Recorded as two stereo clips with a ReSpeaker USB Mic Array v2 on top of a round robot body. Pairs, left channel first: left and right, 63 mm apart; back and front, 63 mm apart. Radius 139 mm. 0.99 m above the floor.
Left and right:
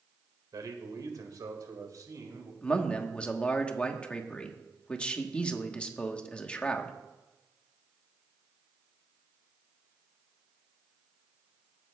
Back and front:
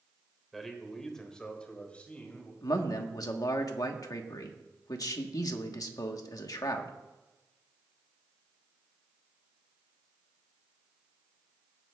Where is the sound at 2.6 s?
160° left, 1.3 m.